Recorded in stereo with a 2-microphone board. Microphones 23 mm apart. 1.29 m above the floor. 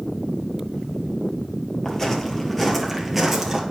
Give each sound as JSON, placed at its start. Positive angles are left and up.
{"t": 1.9, "sound": "footsteps", "side_deg": 25, "distance_m": 1.5}